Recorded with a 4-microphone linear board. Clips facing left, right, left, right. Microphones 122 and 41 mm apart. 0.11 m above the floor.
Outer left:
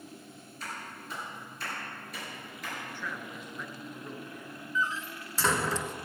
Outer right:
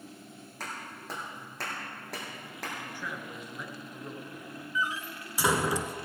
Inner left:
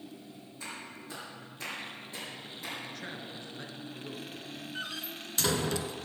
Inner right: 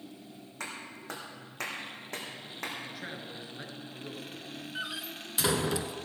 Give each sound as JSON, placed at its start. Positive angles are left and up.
{"t": 0.6, "sound": "a clap", "side_deg": -75, "distance_m": 5.0}
{"t": 2.9, "sound": "a man speaking", "side_deg": -10, "distance_m": 1.8}
{"t": 4.8, "sound": "a door slam", "side_deg": -10, "distance_m": 0.7}